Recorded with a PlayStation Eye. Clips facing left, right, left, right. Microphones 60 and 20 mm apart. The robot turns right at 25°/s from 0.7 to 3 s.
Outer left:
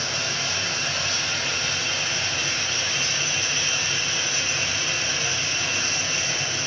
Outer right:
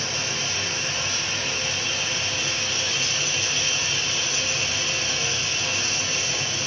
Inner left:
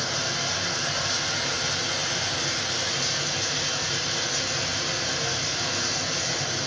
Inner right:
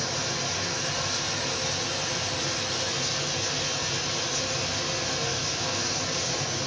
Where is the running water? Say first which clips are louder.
Outer left 1 dB, inner left 2 dB; 70° left, 1.4 m; by 6.7 s 130° left, 1.4 m.